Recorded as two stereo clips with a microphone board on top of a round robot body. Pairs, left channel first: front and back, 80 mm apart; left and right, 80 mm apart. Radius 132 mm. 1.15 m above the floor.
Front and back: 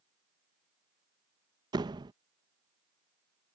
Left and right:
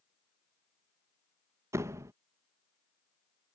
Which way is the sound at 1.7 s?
145° right.